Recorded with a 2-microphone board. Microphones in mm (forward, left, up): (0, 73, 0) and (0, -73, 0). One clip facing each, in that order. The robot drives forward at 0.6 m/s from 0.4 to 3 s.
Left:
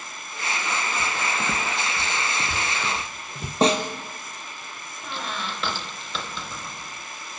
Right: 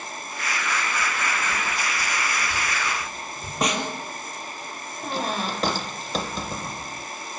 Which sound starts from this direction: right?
A squeak, at 5.0 s.